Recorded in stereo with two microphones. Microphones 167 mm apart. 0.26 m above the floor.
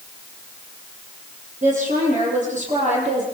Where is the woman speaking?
50° right (ahead or behind), 9 m; by 3.2 s 45° right (ahead or behind), 8.5 m.